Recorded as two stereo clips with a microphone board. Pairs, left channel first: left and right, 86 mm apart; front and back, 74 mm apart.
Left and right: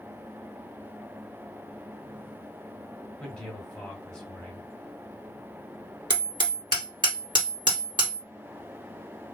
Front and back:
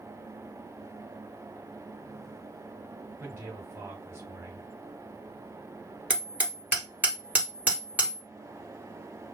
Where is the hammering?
110° right, 1.7 m.